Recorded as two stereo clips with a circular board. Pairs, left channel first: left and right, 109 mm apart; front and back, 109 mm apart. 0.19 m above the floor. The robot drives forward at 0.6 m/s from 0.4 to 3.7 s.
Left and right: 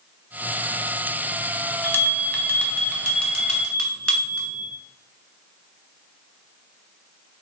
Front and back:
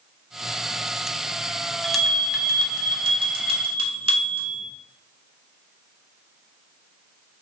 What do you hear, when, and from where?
1.8 s a bell: 70° left, 0.6 m; by 4.6 s 170° left, 1.2 m